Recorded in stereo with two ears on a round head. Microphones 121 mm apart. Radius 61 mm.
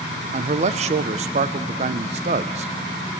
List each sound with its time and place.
0.3 s a man speaking: 50° right (ahead or behind), 0.6 m